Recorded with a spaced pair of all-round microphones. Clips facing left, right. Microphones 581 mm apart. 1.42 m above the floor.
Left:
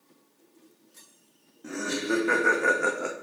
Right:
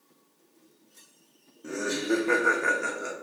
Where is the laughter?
15° left (ahead or behind), 1.0 m; by 3.1 s 75° left (ahead or behind), 0.6 m.